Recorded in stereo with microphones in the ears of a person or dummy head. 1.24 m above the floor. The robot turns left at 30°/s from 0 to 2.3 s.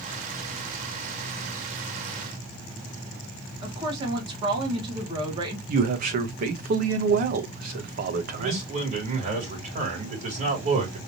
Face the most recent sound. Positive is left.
turn(degrees=-40)  # may be behind; listen again after turning